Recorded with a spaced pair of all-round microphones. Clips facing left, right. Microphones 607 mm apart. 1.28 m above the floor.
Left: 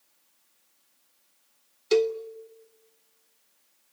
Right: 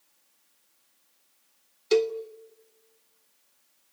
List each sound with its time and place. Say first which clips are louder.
1.9 s a cowbell: left 1 dB; centre (ahead or behind), 0.6 m